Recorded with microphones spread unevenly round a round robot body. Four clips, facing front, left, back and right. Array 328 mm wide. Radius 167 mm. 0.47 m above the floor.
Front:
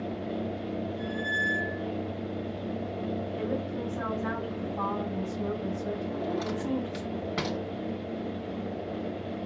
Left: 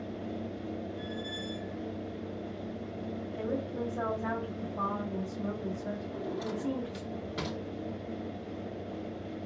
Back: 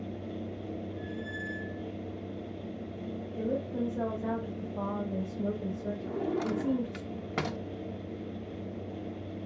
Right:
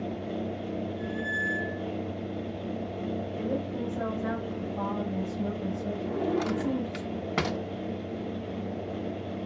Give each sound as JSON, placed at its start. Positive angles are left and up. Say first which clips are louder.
{"t": 1.0, "sound": "a squeak", "louder": "right 6 dB, front 7 dB", "azimuth_deg": -160, "distance_m": 2.0}
{"t": 3.4, "sound": "a woman speaking", "louder": "even, even", "azimuth_deg": -165, "distance_m": 2.5}
{"t": 6.0, "sound": "a drawer", "louder": "right 8 dB, back 3 dB", "azimuth_deg": -85, "distance_m": 0.6}